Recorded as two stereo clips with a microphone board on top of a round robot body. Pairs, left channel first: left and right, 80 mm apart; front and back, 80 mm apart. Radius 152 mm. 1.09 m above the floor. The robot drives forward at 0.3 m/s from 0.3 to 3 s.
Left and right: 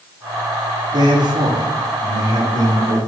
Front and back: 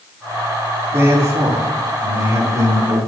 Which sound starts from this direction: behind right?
A man speaking, at 0.9 s.